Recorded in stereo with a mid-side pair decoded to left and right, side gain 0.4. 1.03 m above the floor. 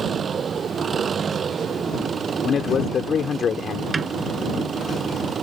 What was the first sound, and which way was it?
An engine running, 55° right.